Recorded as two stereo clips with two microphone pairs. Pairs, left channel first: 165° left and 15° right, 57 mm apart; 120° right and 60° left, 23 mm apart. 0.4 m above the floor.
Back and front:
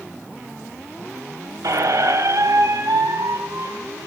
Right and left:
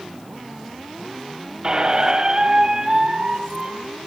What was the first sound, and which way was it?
A squeak, straight ahead.